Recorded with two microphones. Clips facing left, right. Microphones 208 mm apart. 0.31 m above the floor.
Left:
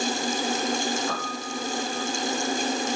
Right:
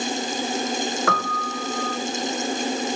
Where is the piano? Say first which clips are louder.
Right 4 dB; 85° right, 1.6 m.